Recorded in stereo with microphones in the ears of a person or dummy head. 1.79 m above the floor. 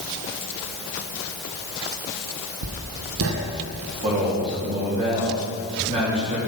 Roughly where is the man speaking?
Right.